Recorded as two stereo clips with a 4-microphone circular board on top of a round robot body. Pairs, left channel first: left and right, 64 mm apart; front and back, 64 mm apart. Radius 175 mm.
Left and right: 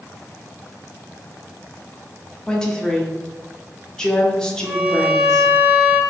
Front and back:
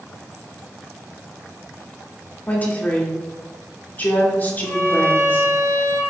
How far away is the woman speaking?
About 1.0 m.